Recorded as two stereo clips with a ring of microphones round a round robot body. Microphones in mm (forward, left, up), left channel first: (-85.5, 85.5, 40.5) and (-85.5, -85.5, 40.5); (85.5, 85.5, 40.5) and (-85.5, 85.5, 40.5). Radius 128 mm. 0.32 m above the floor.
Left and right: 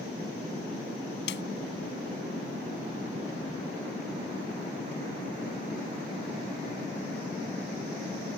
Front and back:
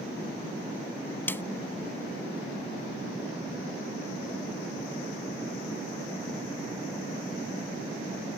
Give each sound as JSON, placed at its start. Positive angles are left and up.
{"t": 1.3, "sound": "a snare drum", "azimuth_deg": 80}